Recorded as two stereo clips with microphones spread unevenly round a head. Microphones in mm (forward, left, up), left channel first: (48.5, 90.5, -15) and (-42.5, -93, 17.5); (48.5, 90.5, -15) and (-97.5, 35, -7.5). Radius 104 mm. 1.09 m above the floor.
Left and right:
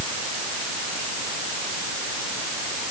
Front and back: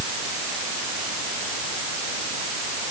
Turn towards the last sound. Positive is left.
No sound to turn to.